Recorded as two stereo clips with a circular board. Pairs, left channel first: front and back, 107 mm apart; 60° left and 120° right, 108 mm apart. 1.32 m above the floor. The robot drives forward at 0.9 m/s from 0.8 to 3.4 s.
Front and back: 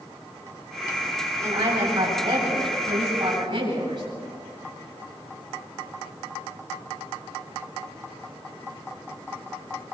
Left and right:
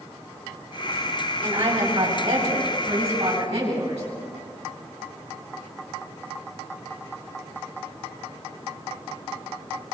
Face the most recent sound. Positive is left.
turn(degrees=-135)